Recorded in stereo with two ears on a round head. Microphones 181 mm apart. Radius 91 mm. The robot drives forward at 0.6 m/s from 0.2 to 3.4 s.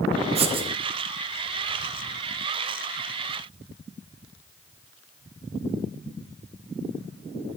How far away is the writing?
About 0.8 m.